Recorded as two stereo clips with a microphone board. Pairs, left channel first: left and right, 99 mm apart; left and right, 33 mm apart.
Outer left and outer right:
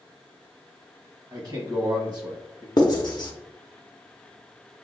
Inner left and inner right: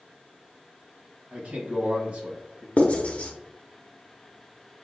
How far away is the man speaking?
About 1.2 m.